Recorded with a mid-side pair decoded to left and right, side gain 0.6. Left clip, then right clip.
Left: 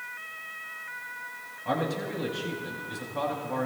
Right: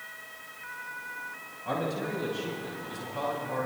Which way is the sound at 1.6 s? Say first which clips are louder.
Left 2 dB; 20° left.